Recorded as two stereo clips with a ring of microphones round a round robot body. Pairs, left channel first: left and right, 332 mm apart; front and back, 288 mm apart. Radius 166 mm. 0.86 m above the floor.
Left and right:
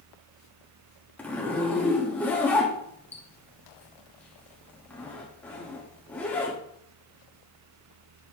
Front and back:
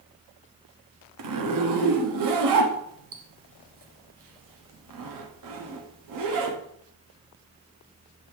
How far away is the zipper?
About 1.1 m.